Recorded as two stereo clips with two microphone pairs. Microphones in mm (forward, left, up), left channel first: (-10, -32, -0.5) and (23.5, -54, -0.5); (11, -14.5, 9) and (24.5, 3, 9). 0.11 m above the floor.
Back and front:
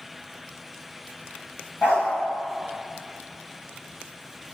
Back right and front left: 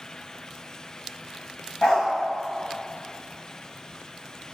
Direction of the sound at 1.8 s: 165° right.